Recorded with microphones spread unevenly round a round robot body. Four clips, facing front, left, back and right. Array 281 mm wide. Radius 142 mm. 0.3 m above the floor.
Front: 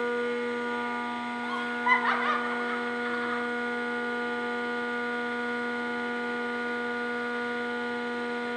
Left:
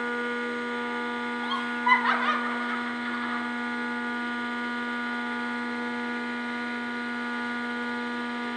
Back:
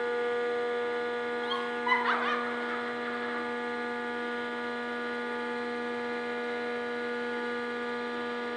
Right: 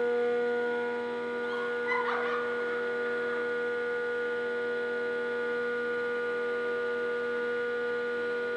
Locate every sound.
1.4 s laughter: 65° left, 1.5 m; by 3.4 s 40° left, 2.5 m